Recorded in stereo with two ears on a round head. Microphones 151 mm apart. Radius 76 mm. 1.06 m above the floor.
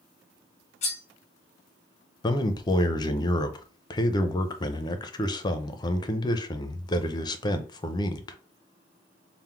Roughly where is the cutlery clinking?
Left.